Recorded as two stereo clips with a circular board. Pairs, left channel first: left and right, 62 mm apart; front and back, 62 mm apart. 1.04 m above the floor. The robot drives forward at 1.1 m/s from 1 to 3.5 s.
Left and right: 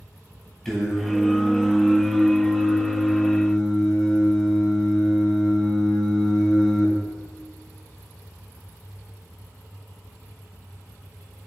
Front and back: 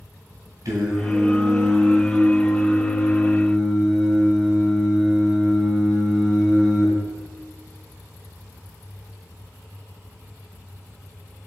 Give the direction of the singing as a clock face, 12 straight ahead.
6 o'clock.